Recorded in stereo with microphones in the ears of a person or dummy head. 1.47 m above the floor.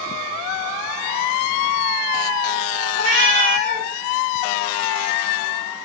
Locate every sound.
2.9 s a cat meowing: 45° right (ahead or behind), 1.6 m